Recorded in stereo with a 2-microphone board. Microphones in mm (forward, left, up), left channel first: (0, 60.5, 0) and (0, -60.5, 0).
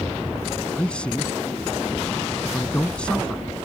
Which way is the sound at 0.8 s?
10° left (ahead or behind).